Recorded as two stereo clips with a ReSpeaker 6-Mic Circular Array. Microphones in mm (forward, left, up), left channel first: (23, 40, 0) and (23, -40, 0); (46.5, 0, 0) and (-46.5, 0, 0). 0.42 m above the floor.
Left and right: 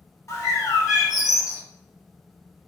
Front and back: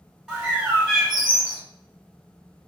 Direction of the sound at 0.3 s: 100° left.